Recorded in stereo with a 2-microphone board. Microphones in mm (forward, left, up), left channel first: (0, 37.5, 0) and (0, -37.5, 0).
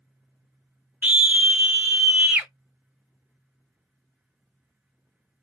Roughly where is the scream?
Centre.